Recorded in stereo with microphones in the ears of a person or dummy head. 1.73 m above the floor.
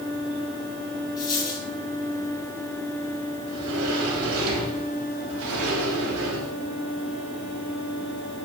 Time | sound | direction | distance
1.2 | a dropped coin | 20° left (ahead or behind) | 5.5 m
3.5 | a sliding door | 75° right (ahead or behind) | 3.5 m